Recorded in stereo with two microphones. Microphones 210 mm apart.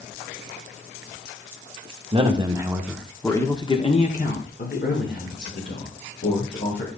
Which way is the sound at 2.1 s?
25° right (ahead or behind).